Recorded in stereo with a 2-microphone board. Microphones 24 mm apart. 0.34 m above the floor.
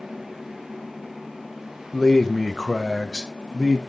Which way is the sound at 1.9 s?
10° left (ahead or behind).